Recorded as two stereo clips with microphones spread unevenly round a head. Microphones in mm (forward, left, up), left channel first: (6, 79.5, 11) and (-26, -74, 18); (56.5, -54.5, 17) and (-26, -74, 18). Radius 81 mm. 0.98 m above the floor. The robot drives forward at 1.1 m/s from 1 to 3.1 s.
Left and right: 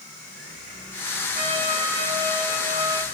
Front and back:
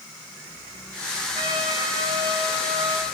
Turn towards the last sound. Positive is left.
turn(degrees=-170)